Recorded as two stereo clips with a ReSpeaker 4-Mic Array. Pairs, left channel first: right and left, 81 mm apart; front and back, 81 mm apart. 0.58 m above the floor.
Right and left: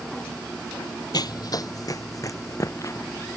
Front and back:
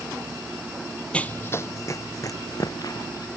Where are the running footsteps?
75° right; by 3.3 s 40° right.